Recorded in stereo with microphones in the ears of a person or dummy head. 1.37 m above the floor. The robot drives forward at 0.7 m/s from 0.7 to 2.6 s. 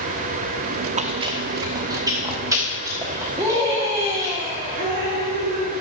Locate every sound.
1.0 s chewing: 30° right (ahead or behind), 0.6 m; by 4.3 s 10° right (ahead or behind), 1.7 m
3.4 s a scream: 10° right (ahead or behind), 1.6 m
4.8 s dripping: 70° right (ahead or behind), 3.5 m